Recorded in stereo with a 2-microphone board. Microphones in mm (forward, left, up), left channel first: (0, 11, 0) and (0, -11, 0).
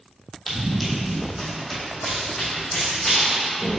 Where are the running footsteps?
5° left (ahead or behind), 1.7 m; by 3.8 s 20° left (ahead or behind), 3.5 m.